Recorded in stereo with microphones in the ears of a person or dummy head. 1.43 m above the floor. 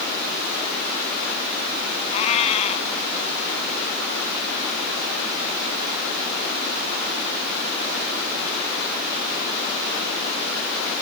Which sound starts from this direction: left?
A cat meowing, at 2.1 s.